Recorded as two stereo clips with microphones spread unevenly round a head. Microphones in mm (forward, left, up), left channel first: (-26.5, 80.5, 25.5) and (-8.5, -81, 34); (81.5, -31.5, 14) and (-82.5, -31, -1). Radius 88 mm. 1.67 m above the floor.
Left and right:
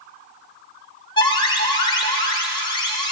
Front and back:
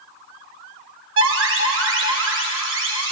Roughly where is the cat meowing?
No cat meowing in this recording.